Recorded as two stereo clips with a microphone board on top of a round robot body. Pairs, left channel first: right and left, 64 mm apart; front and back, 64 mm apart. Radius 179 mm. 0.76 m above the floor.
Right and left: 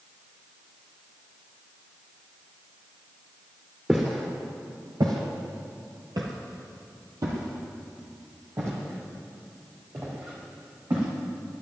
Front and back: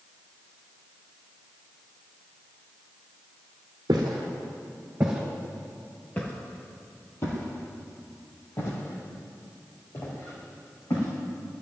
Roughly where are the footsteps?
Behind.